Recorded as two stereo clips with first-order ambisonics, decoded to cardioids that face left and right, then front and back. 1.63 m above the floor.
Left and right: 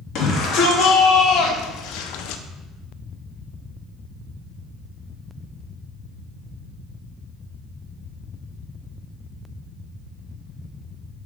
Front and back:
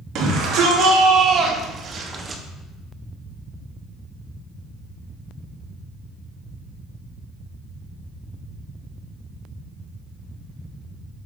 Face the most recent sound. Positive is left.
turn(degrees=100)